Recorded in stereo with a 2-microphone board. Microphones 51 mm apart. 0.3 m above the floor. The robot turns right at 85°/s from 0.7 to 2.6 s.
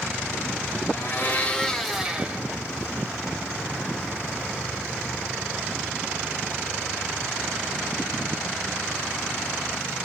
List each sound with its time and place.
0.9 s a blender: 95° left, 0.9 m; by 2.4 s 135° right, 0.9 m